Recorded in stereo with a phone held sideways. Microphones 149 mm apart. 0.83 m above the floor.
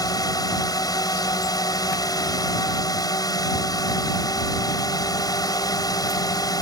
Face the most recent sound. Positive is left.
turn(degrees=25)  # may be behind; listen again after turning